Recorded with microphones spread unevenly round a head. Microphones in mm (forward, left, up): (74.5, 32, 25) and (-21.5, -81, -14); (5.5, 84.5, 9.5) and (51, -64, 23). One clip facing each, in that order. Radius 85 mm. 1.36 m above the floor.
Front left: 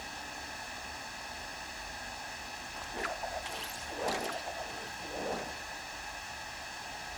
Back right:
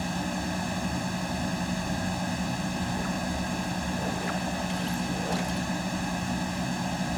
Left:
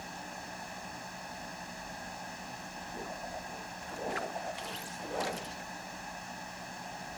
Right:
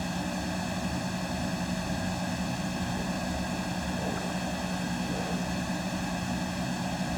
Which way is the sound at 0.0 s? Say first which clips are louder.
Back right 15 dB, right 12 dB; 110° right.